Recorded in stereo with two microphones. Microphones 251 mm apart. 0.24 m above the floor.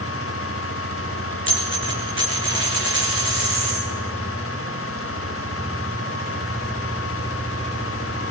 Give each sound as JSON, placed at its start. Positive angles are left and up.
{"t": 1.5, "sound": "a dropped coin", "side_deg": 45, "distance_m": 5.0}